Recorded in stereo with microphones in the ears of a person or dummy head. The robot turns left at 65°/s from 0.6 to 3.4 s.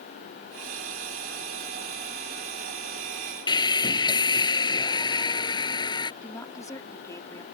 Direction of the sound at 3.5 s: 30° left (ahead or behind).